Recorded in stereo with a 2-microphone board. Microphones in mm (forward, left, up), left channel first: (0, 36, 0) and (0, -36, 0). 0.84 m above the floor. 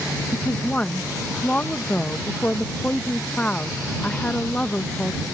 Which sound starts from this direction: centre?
A woman speaking, at 0.3 s.